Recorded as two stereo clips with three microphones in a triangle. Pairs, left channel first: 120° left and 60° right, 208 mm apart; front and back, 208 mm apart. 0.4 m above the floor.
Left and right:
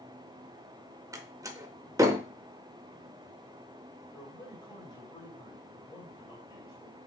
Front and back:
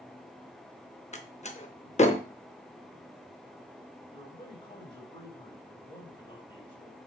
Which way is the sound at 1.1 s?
Straight ahead.